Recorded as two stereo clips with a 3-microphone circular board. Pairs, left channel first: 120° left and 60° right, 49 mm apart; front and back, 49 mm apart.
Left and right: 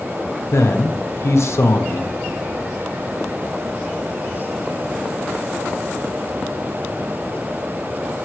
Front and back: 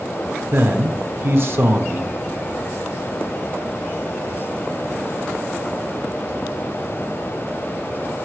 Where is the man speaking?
140° left, 0.9 m.